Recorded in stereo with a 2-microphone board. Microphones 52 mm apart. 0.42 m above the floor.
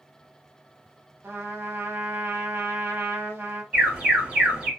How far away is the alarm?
About 2 m.